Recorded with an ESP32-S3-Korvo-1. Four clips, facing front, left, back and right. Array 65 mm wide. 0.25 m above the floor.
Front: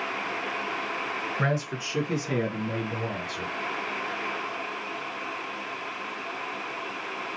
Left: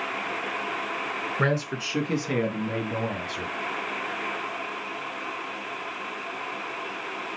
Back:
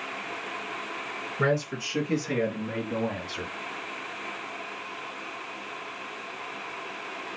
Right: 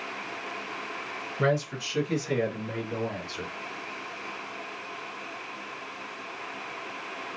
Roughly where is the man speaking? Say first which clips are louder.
Right 1 dB, back 5 dB; left.